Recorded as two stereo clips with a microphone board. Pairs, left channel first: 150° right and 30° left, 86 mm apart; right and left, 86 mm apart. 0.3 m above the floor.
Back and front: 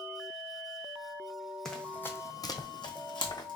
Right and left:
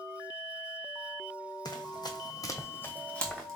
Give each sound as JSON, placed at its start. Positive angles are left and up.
{"t": 1.6, "sound": "running footsteps", "azimuth_deg": -65, "distance_m": 0.6}